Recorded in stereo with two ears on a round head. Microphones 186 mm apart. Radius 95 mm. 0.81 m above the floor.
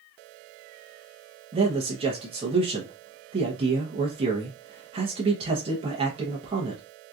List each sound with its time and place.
1.5 s a man speaking: 30° right (ahead or behind), 0.8 m